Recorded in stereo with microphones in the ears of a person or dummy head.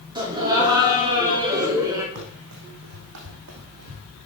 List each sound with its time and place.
0.1 s laughter: 20° right (ahead or behind), 3 m; by 2.0 s 15° right (ahead or behind), 1.9 m
2.1 s running footsteps: 60° right (ahead or behind), 3.5 m; by 4.1 s 50° right (ahead or behind), 2 m